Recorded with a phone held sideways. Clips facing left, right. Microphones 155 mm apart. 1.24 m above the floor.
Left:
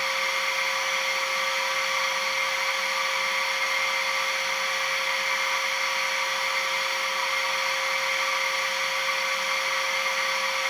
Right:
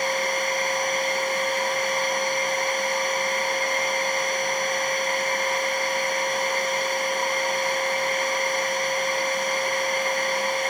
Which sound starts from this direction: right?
A machine running, at 0.0 s.